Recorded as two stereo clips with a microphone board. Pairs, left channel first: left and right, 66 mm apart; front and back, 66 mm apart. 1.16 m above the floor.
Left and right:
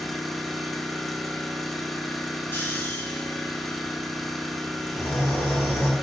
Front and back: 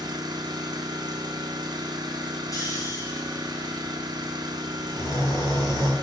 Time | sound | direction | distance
0.0 | an engine running | 175° left | 1.4 m
2.5 | snoring | 30° left | 3 m